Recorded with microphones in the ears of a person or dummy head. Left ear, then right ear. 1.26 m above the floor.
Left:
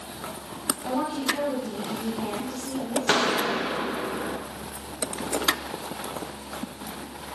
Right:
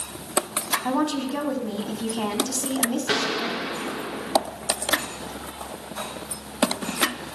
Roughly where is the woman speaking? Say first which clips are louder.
Right 2 dB; right.